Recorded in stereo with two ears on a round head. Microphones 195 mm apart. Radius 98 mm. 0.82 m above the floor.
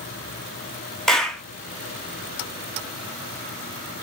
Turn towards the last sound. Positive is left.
turn(degrees=0)  # may be behind; listen again after turning